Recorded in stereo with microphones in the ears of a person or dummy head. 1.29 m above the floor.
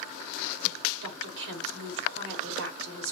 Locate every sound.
1.0 s a woman speaking: 65° right (ahead or behind), 2.5 m